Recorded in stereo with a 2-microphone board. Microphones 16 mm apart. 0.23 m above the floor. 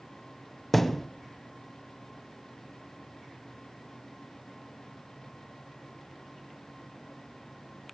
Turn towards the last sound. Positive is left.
turn(degrees=15)  # may be behind; listen again after turning